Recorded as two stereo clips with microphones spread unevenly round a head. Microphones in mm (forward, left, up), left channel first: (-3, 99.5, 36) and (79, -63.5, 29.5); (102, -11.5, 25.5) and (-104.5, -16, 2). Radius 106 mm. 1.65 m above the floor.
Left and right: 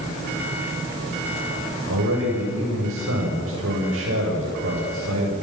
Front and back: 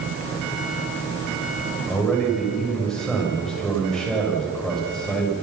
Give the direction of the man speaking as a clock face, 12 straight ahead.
3 o'clock.